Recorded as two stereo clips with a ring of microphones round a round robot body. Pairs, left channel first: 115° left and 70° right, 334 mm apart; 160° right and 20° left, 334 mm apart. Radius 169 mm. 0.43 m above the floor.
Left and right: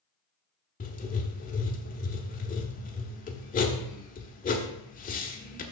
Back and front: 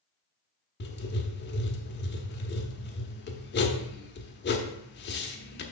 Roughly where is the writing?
Behind.